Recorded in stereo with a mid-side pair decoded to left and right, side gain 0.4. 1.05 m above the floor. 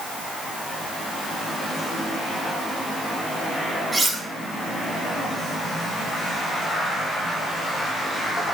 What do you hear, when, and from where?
3.9 s cutlery clinking: 20° right, 5.5 m